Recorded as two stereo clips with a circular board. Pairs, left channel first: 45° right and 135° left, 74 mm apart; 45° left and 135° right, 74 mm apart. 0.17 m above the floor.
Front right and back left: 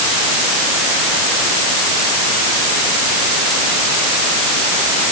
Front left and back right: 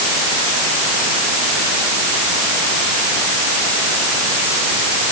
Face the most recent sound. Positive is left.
No sound to turn to.